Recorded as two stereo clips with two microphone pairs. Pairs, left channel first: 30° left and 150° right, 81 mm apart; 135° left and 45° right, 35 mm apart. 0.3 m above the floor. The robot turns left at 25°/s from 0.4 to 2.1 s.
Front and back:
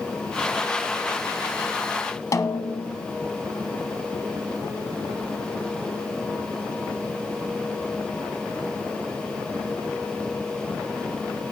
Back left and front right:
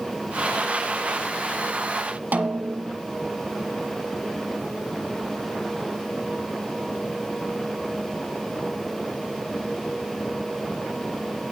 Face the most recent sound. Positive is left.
turn(degrees=-15)